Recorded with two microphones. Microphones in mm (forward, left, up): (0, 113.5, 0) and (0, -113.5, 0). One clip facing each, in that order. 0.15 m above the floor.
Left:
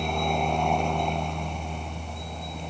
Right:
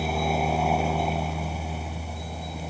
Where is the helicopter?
5° right (ahead or behind).